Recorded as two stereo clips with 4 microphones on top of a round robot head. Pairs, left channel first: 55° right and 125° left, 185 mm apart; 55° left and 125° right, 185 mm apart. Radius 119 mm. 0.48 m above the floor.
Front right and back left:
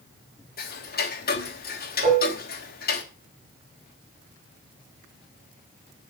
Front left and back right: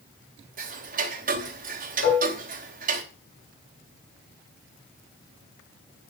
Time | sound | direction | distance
0.6 | ticking | 85° right | 3 m
2.0 | dishes clattering | 75° left | 5 m